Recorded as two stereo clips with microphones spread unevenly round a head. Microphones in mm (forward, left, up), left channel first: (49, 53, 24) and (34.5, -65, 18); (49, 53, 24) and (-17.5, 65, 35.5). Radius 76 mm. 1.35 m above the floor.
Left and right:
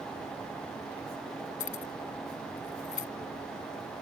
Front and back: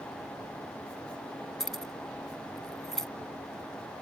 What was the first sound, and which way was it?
Keys jangling, 75° left.